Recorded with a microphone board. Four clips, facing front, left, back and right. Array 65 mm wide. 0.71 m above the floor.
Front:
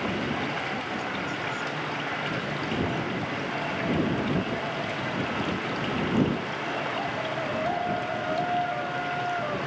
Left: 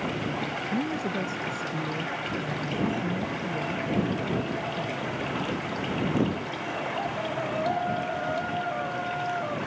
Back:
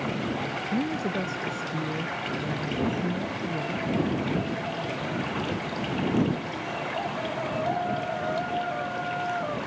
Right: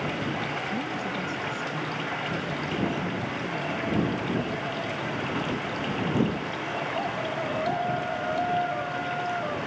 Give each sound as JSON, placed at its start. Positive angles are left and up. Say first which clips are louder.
{"t": 0.7, "sound": "a woman speaking", "louder": "left 2 dB, back 3 dB", "azimuth_deg": 150}